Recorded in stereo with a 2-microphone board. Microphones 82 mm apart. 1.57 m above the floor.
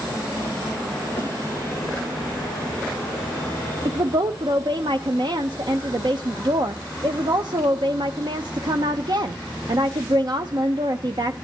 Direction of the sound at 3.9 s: 60° right (ahead or behind).